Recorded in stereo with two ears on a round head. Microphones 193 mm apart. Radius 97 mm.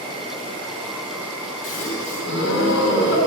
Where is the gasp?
65° left (ahead or behind), 4.5 m.